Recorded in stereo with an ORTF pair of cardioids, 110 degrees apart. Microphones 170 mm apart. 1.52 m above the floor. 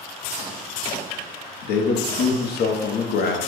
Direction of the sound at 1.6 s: 70° left.